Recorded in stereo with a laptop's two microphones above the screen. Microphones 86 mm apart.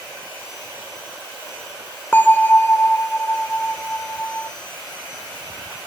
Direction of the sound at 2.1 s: 20° left (ahead or behind).